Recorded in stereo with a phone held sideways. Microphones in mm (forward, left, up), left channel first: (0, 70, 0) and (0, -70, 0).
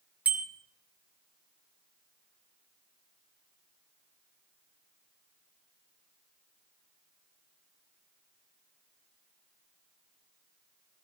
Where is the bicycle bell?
10° right (ahead or behind), 2 m.